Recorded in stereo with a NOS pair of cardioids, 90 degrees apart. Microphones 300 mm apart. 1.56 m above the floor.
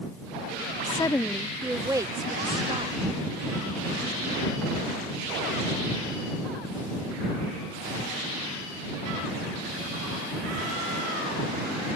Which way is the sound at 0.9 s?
20° left.